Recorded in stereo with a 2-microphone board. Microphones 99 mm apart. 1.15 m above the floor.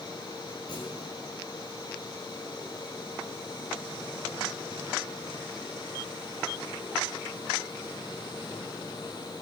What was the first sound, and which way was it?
A clunk, 45° left (ahead or behind).